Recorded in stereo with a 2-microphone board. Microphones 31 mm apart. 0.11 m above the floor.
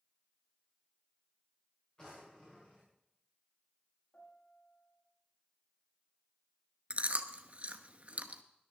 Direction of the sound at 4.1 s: 80° left.